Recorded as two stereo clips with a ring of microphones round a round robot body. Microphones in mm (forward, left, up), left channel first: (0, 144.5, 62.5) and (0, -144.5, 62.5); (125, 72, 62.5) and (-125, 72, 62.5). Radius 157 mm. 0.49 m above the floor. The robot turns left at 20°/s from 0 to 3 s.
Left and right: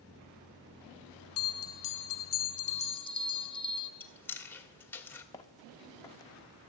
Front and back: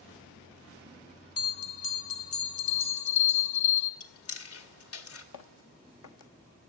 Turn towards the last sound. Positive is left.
turn(degrees=10)